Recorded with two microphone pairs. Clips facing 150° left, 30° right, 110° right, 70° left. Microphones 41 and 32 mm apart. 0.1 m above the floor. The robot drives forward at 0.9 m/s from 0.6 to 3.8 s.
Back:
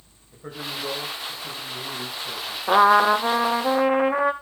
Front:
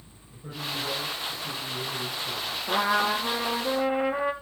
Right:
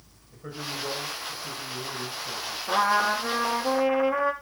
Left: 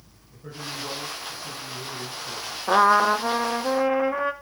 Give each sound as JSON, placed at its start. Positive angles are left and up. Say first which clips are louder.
{"t": 0.3, "sound": "a man speaking", "louder": "back 1 dB, right 1 dB", "azimuth_deg": -175, "distance_m": 7.5}
{"t": 2.7, "sound": "a trumpet", "louder": "back 9 dB, left 5 dB", "azimuth_deg": 120, "distance_m": 0.9}